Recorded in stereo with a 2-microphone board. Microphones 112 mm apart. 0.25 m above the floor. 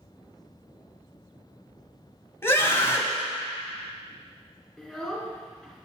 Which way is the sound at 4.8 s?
5° left (ahead or behind).